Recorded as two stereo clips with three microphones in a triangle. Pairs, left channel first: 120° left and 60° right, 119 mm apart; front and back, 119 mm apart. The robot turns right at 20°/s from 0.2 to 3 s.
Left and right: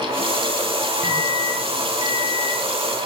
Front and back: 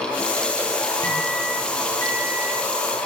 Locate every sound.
1.0 s a microwave: 55° left, 8.5 m; by 2.6 s 85° left, 8.5 m